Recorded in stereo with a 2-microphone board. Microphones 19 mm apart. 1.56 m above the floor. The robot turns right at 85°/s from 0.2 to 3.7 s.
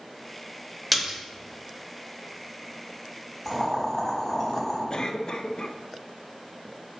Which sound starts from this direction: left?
A cough, at 4.9 s.